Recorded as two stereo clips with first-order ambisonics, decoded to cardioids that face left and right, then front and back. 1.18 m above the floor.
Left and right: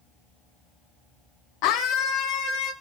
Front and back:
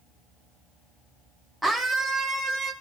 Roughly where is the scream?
Left.